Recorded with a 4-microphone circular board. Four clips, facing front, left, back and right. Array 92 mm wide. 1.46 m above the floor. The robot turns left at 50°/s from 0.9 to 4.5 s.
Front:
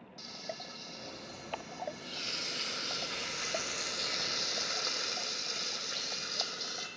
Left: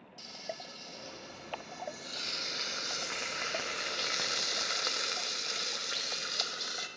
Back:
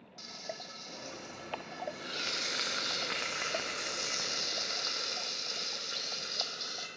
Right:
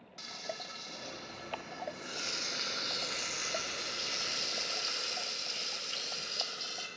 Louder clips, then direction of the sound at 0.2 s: Right 1 dB, even; 95° right.